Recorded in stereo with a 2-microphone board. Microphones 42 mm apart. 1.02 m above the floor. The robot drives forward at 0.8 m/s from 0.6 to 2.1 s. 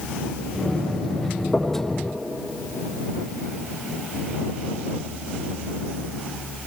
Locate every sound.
1.5 s knocking: 5° right (ahead or behind), 2.5 m